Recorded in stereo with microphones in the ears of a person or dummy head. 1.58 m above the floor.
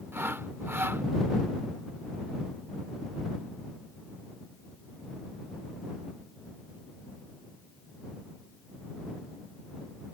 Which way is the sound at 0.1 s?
20° right (ahead or behind).